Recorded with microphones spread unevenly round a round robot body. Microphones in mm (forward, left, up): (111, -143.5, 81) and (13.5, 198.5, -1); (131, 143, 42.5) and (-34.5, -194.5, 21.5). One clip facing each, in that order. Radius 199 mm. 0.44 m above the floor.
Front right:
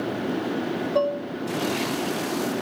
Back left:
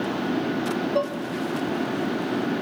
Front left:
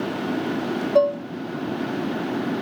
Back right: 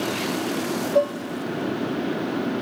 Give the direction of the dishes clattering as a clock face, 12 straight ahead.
11 o'clock.